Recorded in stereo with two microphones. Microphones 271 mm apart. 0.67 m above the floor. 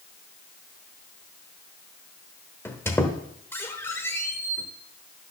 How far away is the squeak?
About 1.1 m.